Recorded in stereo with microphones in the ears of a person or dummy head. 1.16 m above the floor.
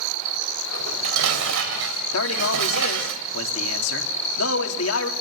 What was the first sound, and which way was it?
Dishes clattering, 80° right.